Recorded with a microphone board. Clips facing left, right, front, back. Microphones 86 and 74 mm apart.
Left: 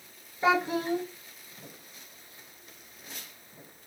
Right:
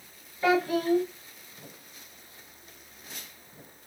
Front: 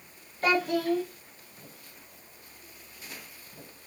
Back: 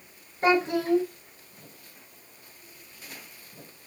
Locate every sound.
0.4 s a child speaking: 140° left, 0.8 m